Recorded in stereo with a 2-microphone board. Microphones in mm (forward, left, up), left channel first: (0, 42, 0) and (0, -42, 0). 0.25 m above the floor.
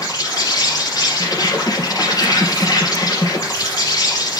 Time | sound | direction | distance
0.0 | an insect | 50° left (ahead or behind) | 3.5 m